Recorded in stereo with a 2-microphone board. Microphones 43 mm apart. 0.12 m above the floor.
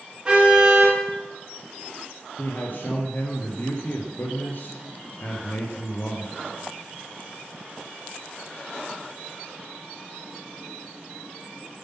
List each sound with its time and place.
0.2 s a car horn: 20° right (ahead or behind), 9 m
2.4 s a man speaking: 45° left (ahead or behind), 2.5 m